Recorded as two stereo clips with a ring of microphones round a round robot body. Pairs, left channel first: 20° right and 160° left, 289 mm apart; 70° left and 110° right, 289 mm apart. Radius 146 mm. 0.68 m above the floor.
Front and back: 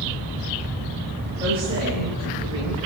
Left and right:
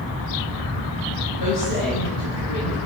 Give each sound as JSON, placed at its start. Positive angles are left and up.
{"t": 1.4, "sound": "a woman speaking", "azimuth_deg": 85, "distance_m": 6.0}